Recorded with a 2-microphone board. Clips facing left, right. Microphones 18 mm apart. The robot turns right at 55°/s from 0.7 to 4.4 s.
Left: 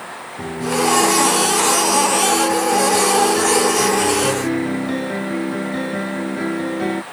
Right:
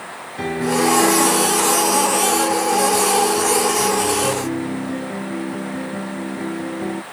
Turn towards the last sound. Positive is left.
turn(degrees=135)